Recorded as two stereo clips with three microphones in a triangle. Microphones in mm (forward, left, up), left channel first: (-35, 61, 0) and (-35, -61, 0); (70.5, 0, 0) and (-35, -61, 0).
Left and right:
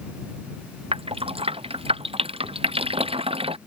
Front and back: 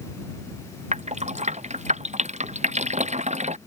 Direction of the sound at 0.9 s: 130° right.